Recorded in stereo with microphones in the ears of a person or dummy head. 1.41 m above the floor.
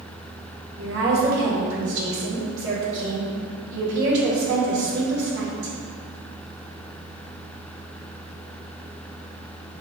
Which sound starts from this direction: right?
A woman speaking, at 0.8 s.